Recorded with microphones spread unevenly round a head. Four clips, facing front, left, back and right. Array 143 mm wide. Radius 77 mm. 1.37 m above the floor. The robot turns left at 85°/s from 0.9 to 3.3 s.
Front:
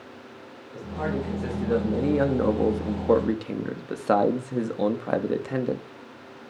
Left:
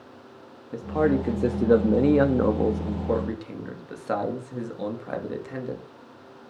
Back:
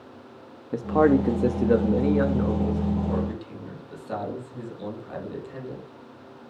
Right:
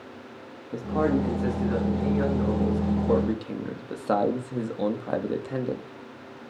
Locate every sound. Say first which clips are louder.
0.7 s a man speaking: left 1 dB, back 11 dB; 175° right, 3 m; by 5.8 s 20° right, 3 m